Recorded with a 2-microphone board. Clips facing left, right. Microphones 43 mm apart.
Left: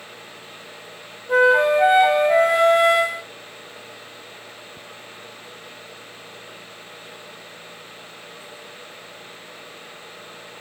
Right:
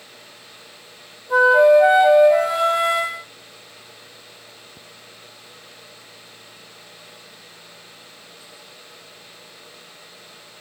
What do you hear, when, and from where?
1.3 s a flute: 50° left (ahead or behind), 1.0 m